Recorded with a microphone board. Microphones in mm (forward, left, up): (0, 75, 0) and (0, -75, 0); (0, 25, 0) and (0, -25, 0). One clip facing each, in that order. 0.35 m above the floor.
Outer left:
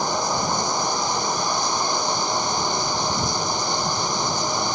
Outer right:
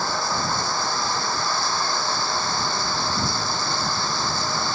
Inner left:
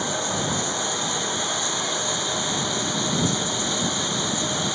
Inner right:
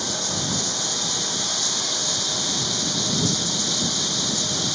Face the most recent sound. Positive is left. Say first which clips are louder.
# outer left 3 dB, inner left 3 dB
turn(degrees=20)  # may be behind; listen again after turning